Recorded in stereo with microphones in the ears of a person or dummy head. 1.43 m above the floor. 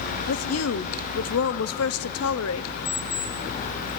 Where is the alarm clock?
65° left (ahead or behind), 3.5 m.